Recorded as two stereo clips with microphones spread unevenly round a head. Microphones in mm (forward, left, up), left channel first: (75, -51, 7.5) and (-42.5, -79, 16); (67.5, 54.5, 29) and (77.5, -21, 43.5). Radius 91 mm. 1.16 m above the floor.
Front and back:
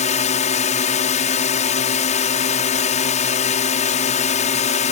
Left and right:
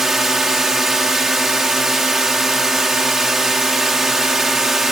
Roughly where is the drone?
Ahead.